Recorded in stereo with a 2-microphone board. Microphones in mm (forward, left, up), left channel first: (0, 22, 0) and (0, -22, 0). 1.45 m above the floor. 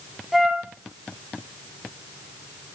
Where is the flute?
5° right (ahead or behind), 2 m.